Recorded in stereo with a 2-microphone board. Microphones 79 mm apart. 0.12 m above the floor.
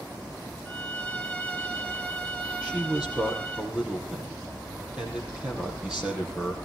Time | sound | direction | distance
0.7 | a violin | 20° left (ahead or behind) | 1.6 m
2.6 | a man speaking | 10° right (ahead or behind) | 4.5 m